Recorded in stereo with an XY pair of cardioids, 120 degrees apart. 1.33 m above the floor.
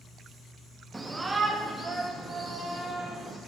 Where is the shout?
15° right, 1.4 m.